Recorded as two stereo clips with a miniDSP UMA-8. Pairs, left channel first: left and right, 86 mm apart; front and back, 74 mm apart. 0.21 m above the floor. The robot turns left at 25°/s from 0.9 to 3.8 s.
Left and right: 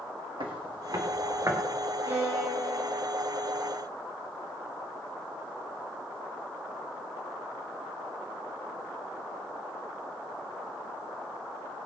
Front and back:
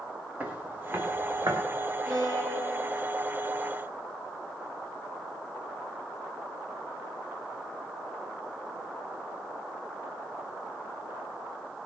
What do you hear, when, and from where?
0.4 s footsteps: 115° right, 3.5 m; by 1.6 s 155° right, 3.5 m
2.0 s a violin: 155° right, 5 m; by 3.0 s straight behind, 5 m